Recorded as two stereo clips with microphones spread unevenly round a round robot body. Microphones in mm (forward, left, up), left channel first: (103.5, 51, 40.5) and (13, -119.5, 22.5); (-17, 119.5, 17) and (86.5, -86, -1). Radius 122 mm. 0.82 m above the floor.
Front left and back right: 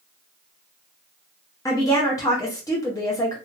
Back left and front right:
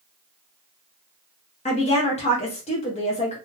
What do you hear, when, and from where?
1.6 s a woman speaking: 120° left, 0.7 m